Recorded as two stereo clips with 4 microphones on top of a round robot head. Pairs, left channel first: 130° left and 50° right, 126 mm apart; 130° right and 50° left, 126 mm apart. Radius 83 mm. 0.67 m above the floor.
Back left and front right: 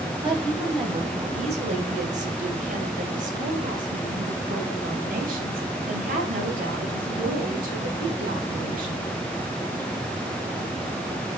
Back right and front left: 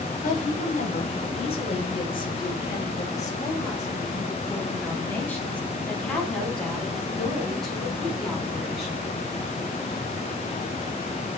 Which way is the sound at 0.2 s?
105° right.